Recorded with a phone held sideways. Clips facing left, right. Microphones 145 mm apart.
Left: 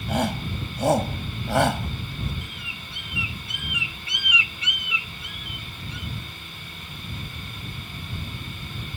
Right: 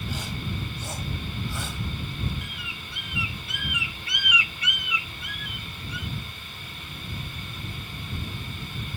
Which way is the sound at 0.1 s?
60° left (ahead or behind).